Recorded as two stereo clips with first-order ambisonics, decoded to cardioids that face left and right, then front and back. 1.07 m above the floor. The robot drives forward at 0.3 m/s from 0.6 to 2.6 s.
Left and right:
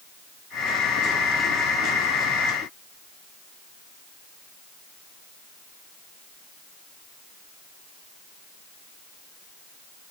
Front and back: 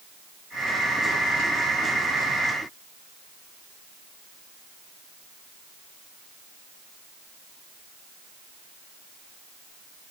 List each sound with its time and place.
Only background noise.